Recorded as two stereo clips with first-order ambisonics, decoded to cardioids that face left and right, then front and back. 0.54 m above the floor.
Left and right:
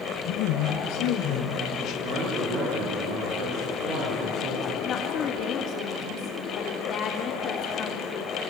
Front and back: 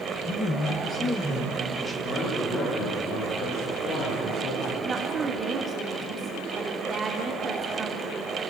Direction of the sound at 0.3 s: 75° left.